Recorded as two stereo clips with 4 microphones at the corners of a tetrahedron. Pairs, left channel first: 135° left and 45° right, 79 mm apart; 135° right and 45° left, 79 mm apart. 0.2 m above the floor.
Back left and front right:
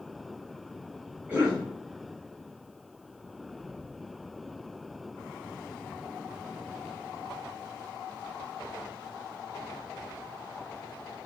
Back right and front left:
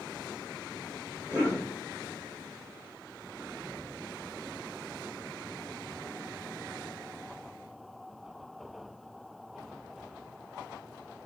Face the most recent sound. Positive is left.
turn(degrees=-90)